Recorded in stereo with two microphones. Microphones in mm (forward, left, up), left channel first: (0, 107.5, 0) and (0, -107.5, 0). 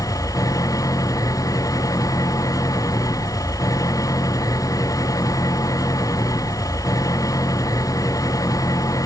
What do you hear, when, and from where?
0.0 s an engine running: 15° left (ahead or behind)